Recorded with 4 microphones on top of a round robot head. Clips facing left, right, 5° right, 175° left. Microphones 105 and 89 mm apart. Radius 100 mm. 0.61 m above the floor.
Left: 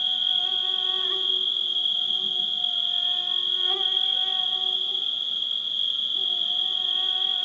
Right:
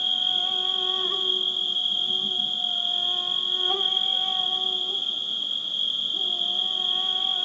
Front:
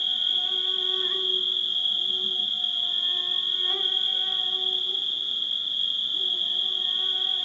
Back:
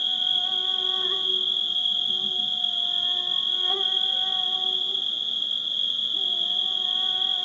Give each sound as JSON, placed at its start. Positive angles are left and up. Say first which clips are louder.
{"t": 0.0, "sound": "an insect", "louder": "right 3 dB, back 2 dB", "azimuth_deg": -130, "distance_m": 1.0}